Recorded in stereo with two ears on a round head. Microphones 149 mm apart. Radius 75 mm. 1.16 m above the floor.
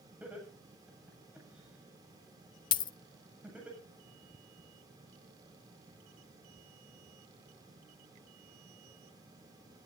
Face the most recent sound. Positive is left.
turn(degrees=30)  # may be behind; listen again after turning